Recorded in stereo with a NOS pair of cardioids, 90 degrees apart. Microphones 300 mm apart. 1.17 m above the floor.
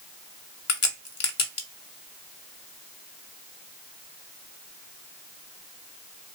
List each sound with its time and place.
0.7 s a crack: 65° left, 0.9 m